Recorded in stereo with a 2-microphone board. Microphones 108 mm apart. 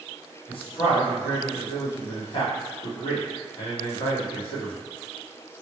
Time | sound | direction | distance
0.5 | a man speaking | 50° left (ahead or behind) | 1.2 m